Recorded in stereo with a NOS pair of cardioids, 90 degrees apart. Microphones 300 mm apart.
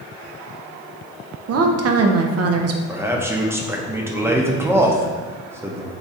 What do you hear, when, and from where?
1.5 s a woman speaking: 55° right, 0.6 m
2.9 s a man speaking: 10° right, 0.8 m